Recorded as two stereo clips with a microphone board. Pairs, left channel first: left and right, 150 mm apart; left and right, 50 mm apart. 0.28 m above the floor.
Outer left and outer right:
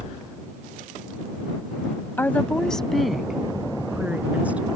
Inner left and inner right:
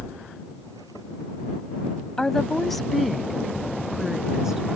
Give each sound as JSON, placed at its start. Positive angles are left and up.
{"t": 2.2, "sound": "a woman speaking", "side_deg": 15}